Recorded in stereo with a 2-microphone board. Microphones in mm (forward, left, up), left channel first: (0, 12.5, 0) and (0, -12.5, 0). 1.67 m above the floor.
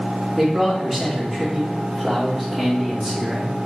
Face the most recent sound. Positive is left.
turn(degrees=-20)  # may be behind; listen again after turning